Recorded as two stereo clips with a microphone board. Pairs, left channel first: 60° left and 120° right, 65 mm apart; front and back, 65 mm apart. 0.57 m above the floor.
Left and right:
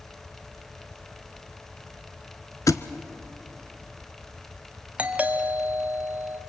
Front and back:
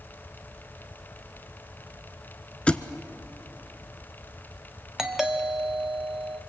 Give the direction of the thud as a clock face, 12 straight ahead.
10 o'clock.